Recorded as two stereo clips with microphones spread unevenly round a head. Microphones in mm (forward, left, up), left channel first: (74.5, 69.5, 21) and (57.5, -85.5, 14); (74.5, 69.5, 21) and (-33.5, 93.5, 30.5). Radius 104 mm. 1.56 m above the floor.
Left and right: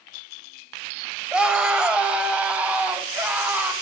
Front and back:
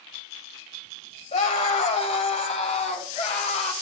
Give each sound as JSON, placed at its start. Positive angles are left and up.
{"t": 1.3, "sound": "a scream", "azimuth_deg": -15, "distance_m": 1.8}